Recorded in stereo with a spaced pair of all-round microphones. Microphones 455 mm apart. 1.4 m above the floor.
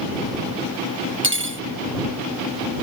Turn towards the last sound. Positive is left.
turn(degrees=-25)  # may be behind; listen again after turning